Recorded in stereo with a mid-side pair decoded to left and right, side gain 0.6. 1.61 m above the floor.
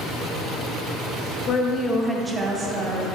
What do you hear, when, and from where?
1.5 s a woman speaking: 50° left, 0.6 m; by 3.0 s 50° right, 0.9 m